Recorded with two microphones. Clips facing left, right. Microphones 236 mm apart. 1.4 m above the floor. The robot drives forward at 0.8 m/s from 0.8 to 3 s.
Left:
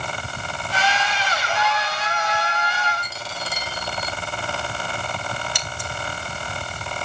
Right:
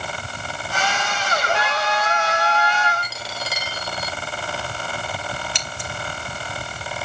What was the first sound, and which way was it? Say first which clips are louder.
A trumpet: right 2 dB; 85° right.